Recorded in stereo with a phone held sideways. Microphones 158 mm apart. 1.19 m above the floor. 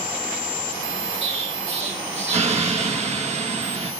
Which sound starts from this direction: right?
An explosion, at 1.2 s.